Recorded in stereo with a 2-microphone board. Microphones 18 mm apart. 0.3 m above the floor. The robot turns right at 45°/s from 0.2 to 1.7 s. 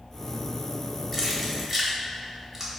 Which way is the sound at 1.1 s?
5° left (ahead or behind).